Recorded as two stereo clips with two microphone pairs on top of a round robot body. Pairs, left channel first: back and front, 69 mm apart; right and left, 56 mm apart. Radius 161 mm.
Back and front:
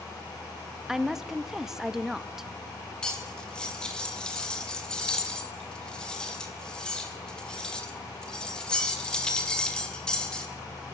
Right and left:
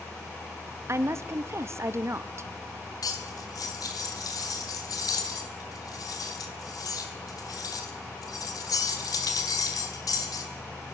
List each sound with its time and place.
0.9 s a woman speaking: 90° left, 0.8 m
3.0 s cutlery clinking: 105° right, 1.6 m